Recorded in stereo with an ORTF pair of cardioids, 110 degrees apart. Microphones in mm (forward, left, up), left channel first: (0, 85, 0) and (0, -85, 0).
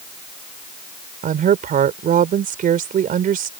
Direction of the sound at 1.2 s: 55° right.